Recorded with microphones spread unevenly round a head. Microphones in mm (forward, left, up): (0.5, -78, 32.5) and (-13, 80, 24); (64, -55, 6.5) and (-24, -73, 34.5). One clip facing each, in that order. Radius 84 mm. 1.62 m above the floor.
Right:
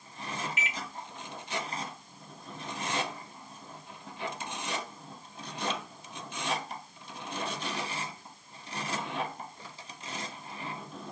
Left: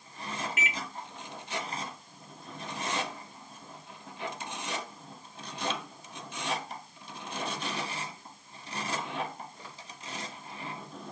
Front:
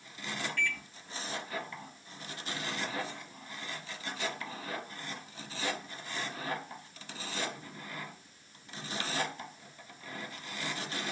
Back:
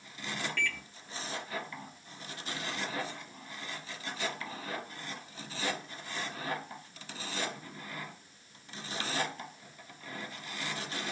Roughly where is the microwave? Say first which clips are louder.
Left 2 dB, even; behind left.